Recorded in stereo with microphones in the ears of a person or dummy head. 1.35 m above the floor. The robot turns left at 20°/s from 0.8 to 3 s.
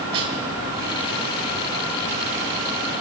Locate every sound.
0.1 s a snare drum: 25° right (ahead or behind), 5 m